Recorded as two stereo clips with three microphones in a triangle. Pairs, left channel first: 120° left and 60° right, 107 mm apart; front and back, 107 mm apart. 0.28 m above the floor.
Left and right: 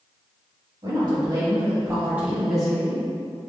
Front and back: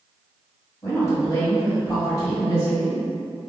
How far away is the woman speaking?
About 1.9 m.